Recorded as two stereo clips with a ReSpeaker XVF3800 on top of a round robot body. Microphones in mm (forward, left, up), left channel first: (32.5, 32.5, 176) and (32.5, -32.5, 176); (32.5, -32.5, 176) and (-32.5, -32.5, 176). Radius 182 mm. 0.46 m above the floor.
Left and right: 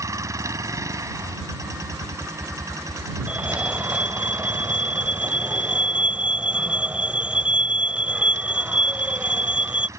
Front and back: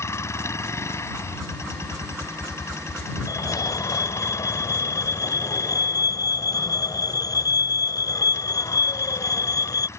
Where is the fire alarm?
15° right.